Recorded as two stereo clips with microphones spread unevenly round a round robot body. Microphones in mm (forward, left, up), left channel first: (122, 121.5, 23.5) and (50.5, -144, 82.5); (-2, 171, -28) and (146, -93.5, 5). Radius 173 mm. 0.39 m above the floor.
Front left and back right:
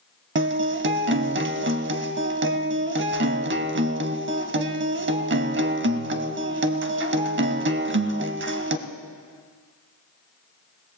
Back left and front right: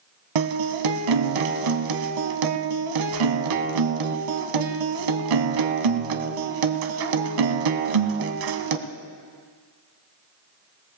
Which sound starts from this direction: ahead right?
A guitar, at 0.3 s.